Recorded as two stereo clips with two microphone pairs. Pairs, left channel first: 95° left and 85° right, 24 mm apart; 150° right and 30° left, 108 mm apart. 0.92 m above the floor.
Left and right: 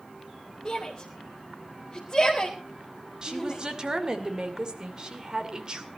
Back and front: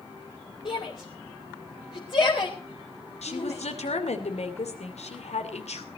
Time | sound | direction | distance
0.7 | a shout | 170° left | 3 m
3.2 | a woman speaking | 145° right | 2.5 m